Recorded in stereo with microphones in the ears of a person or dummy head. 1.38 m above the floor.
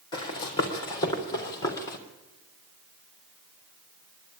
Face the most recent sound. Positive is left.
turn(degrees=15)  # may be behind; listen again after turning